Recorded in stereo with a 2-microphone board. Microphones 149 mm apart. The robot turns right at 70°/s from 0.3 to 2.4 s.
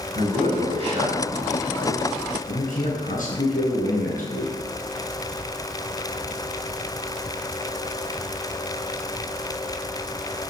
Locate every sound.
0.1 s a man speaking: 80° right, 4.5 m; by 4.5 s 65° left, 4.5 m